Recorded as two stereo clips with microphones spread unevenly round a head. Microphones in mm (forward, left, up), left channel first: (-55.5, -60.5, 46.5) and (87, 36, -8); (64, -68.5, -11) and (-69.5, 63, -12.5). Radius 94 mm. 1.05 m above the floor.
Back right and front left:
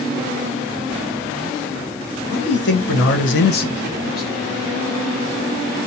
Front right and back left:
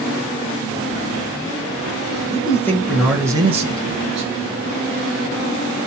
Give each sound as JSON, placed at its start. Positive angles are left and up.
{"t": 2.3, "sound": "a man speaking", "azimuth_deg": -115, "distance_m": 1.4}